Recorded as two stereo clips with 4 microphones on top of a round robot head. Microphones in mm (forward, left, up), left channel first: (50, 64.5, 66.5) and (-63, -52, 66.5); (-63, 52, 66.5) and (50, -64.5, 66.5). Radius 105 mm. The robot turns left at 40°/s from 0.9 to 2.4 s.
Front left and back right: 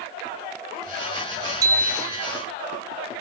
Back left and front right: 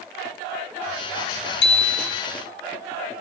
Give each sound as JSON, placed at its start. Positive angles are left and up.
{"t": 1.6, "sound": "a bicycle bell", "azimuth_deg": 155, "distance_m": 4.0}